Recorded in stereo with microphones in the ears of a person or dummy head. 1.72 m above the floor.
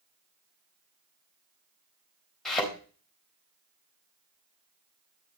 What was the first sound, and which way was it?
A thud, 5° left (ahead or behind).